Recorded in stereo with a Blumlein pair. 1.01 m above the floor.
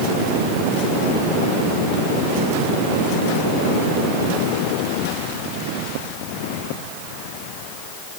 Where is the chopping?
No chopping in this recording.